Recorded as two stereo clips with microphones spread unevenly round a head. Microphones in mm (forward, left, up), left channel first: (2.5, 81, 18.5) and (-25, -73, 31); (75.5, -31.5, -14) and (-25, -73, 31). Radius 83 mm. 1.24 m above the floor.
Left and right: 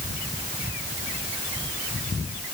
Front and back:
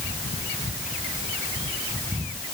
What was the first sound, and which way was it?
Only background noise.